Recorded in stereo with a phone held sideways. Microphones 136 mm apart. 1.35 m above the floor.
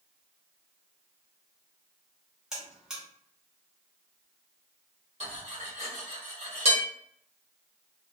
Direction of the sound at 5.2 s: 55° right (ahead or behind).